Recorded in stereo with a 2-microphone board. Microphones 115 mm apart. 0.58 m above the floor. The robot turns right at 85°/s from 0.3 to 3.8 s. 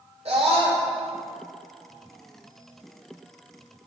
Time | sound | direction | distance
0.2 | a scream | 100° right | 2 m